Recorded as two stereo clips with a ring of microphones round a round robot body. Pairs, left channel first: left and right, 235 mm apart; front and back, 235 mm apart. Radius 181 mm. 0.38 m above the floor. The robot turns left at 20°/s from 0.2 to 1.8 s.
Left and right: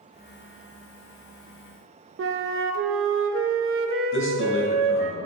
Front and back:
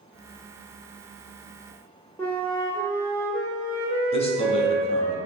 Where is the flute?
80° right, 0.8 m.